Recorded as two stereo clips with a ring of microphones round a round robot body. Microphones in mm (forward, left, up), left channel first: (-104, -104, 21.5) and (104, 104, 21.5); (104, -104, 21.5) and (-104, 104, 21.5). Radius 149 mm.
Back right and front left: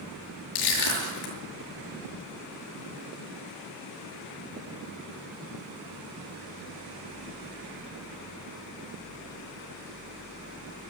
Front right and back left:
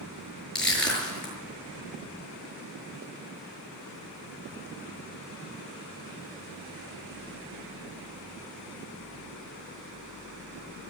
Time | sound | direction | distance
0.6 | crushing | 130° right | 5.5 m